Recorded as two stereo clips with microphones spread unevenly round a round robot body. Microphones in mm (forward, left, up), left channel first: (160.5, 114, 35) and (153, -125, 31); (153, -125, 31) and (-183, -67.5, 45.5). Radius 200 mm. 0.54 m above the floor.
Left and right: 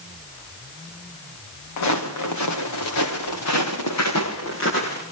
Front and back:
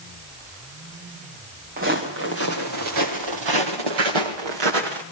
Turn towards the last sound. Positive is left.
turn(degrees=155)